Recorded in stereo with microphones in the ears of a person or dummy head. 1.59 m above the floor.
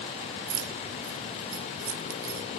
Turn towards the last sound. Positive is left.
turn(degrees=-75)  # may be behind; listen again after turning